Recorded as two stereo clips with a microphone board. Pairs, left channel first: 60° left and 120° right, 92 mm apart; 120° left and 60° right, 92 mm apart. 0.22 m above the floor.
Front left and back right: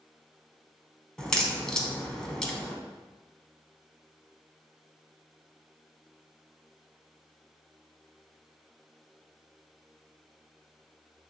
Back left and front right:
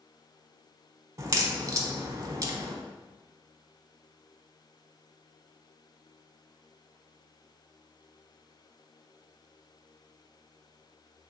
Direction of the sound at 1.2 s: 20° right.